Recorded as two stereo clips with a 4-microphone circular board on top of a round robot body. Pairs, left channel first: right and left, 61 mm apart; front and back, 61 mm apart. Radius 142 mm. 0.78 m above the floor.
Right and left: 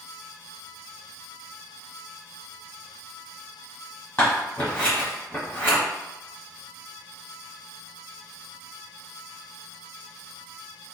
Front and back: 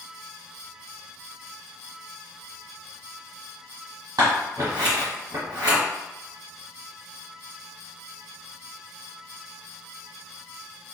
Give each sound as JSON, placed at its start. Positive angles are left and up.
{"t": 4.2, "sound": "scissors", "azimuth_deg": -145, "distance_m": 1.5}